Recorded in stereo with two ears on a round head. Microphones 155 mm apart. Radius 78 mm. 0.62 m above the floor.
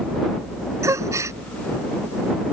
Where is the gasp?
20° right (ahead or behind).